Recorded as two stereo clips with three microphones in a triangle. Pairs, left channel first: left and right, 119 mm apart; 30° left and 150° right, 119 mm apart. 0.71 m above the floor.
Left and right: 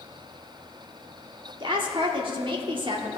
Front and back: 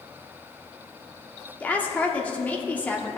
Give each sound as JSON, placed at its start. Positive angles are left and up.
{"t": 1.6, "sound": "a woman speaking", "azimuth_deg": -45, "distance_m": 1.2}